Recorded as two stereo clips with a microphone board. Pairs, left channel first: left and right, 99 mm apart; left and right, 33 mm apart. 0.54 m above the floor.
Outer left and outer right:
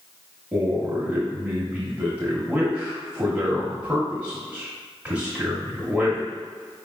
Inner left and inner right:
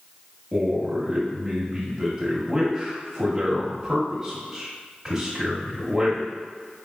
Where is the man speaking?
10° right (ahead or behind), 1.3 m.